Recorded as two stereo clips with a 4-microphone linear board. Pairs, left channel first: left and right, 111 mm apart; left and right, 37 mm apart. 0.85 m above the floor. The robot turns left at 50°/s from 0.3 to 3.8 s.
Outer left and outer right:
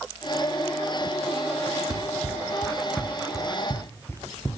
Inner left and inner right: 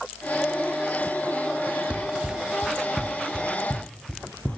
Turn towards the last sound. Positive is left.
turn(degrees=25)  # may be behind; listen again after turning